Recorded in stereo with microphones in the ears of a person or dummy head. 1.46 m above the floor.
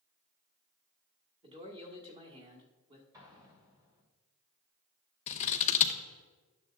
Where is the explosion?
25° right (ahead or behind), 3 m.